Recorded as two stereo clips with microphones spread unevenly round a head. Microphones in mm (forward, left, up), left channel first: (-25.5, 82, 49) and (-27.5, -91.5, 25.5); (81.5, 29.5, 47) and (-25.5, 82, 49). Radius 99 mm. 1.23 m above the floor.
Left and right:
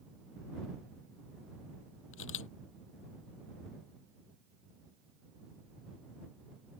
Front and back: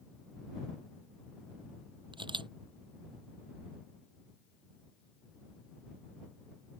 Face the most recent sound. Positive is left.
turn(degrees=105)